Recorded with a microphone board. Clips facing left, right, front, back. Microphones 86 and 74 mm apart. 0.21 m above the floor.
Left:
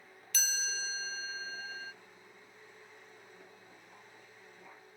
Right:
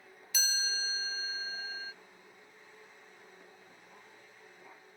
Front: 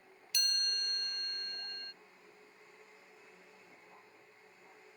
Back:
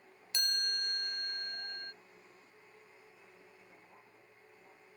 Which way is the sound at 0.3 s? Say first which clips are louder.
Right 1 dB, back 2 dB; 165° right.